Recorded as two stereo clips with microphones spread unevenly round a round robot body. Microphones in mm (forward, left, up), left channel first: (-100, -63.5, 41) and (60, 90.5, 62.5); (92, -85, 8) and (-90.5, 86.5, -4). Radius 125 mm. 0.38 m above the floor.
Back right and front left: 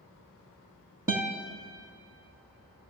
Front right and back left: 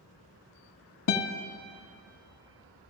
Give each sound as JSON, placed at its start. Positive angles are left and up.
{"t": 1.1, "sound": "a guitar", "azimuth_deg": -30, "distance_m": 0.8}